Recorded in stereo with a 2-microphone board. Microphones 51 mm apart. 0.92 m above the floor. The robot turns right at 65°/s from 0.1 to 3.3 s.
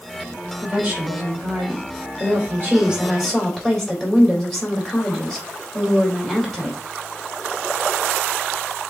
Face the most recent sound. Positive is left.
turn(degrees=10)